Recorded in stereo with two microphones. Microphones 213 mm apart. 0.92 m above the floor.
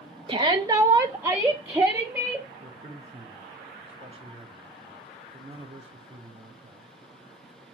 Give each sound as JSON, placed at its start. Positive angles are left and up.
{"t": 0.3, "sound": "a shout", "side_deg": -25, "distance_m": 1.1}
{"t": 2.6, "sound": "a man speaking", "side_deg": -30, "distance_m": 3.0}